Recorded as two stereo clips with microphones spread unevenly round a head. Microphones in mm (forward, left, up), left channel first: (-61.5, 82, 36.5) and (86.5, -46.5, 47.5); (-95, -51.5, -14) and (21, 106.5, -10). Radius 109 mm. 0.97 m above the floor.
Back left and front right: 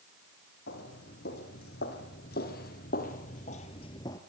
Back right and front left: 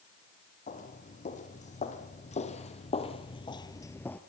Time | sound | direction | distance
0.7 | footsteps | 175° right | 3 m